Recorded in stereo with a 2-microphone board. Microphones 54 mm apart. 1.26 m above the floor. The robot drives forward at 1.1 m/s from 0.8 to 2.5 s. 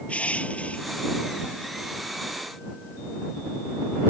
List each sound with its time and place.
0.1 s crushing: 25° left (ahead or behind)